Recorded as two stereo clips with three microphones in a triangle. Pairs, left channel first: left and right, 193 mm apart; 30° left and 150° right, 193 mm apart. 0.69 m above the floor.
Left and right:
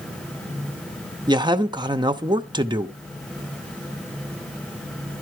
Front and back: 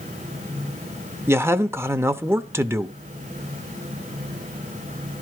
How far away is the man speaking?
About 0.7 m.